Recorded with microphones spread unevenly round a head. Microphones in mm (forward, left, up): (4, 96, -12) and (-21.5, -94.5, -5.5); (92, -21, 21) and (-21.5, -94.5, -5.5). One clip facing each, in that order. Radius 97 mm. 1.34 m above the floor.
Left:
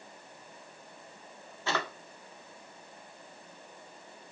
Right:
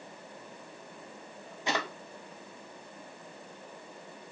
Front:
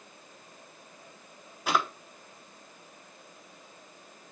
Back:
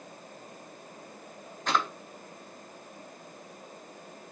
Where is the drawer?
30° right, 0.6 m.